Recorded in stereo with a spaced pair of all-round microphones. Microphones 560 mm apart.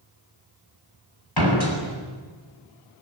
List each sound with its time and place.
1.4 s a door slam: 40° left (ahead or behind), 6 m